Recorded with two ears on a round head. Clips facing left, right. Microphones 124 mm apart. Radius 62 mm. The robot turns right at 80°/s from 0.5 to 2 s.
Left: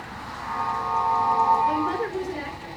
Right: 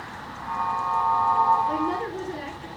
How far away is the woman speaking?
About 8 m.